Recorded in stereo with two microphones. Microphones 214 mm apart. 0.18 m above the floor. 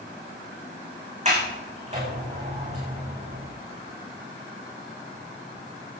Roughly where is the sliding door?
Right.